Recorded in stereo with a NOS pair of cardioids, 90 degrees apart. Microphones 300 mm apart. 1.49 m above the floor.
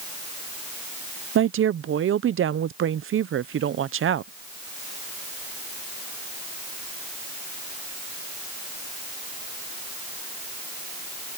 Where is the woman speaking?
45° right.